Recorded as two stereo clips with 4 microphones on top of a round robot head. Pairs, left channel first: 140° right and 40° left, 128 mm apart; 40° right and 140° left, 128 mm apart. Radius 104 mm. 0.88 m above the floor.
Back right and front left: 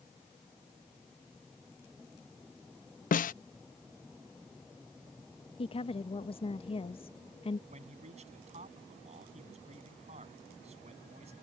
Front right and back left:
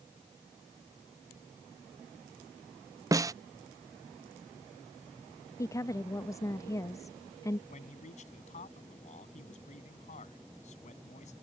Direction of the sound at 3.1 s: 155° right.